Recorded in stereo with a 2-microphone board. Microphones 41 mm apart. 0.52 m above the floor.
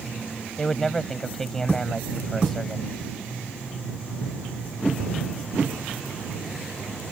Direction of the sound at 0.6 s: 10° left (ahead or behind).